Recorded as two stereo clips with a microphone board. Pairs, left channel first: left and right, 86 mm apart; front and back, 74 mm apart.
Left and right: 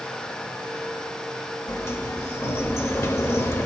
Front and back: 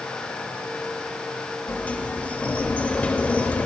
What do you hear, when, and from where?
1.7 s a sliding door: 55° left, 0.8 m